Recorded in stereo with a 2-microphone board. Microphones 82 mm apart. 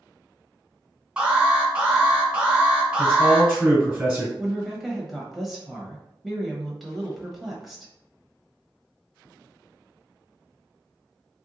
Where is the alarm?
10° right (ahead or behind), 1.3 m.